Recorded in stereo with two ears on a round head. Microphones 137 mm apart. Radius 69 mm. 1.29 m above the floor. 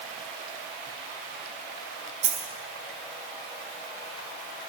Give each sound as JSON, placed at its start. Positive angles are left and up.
{"t": 2.2, "sound": "a dropped coin", "side_deg": -45, "distance_m": 5.0}